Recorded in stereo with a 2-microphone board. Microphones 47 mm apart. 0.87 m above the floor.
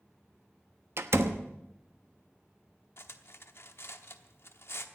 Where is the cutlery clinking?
60° left (ahead or behind), 1.0 m.